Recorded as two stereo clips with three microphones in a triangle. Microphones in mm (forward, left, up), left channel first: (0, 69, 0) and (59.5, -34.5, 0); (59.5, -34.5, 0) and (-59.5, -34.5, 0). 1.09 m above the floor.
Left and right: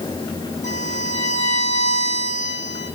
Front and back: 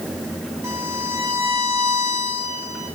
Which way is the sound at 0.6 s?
110° left.